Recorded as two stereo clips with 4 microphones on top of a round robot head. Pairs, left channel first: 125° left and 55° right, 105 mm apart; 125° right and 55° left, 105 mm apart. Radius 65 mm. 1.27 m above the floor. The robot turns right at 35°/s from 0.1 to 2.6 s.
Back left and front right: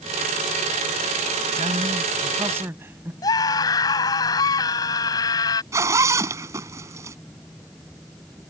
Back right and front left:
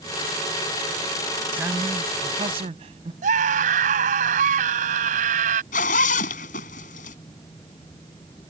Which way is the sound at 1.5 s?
20° right.